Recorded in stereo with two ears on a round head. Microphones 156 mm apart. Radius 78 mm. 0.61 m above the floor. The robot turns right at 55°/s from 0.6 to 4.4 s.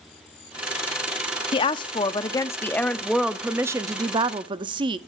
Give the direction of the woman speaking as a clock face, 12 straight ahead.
9 o'clock.